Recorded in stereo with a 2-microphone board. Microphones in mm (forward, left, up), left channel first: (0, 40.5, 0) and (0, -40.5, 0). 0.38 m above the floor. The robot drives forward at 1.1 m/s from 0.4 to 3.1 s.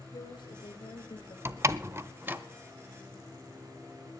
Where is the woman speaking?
65° left (ahead or behind), 5 m; by 1.4 s 55° left (ahead or behind), 5.5 m.